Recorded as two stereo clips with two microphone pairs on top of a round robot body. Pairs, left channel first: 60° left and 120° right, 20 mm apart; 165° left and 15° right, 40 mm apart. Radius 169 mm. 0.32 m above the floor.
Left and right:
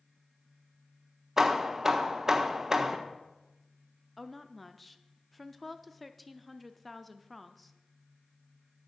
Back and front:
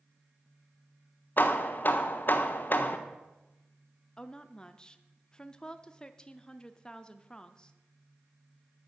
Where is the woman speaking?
125° left, 0.9 m.